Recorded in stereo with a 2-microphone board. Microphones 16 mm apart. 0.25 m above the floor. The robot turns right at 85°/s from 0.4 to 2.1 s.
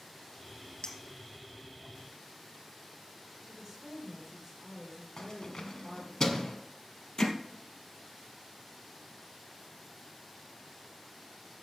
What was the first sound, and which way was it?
A clink, 55° left (ahead or behind).